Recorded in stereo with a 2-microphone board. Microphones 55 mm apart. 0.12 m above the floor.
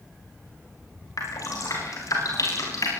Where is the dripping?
70° left (ahead or behind), 10 m.